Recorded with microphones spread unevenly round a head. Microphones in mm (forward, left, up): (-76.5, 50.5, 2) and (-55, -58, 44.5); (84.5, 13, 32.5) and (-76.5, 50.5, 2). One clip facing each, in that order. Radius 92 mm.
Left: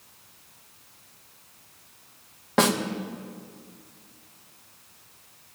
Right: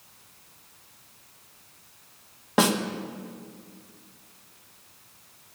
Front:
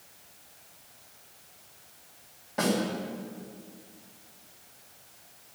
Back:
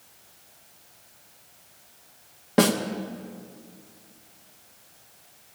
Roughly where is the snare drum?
Behind right.